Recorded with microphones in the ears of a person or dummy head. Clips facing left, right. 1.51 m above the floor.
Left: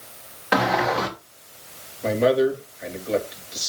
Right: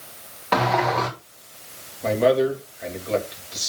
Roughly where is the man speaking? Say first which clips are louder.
Even; centre.